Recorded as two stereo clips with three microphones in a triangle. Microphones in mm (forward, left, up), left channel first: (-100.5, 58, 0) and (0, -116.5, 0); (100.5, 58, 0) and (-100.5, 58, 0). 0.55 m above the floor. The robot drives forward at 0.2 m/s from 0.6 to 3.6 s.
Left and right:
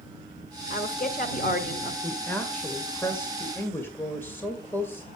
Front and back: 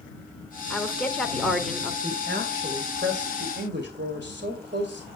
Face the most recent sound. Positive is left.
turn(degrees=-160)